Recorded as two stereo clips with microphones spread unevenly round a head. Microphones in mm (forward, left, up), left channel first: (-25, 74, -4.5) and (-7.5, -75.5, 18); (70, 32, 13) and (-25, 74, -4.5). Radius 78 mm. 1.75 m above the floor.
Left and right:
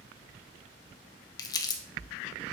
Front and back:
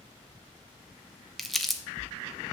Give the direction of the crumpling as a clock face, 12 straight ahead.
11 o'clock.